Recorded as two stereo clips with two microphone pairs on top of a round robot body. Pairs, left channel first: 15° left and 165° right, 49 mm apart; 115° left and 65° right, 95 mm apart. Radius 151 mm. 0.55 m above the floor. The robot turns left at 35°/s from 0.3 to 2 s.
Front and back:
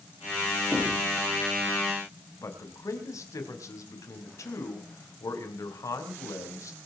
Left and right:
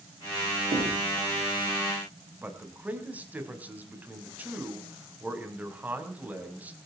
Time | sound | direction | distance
0.7 | knocking | 60° right | 8.5 m
2.4 | a man speaking | 10° left | 5 m